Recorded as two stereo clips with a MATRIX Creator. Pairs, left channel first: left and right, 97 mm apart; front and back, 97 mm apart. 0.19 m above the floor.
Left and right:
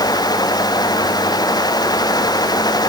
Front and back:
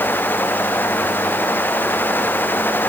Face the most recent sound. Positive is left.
No sound to turn to.